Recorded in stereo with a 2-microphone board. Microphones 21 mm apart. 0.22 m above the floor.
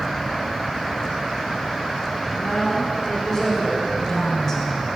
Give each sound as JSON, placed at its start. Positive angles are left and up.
{"t": 2.4, "sound": "a woman speaking", "side_deg": 20, "distance_m": 2.0}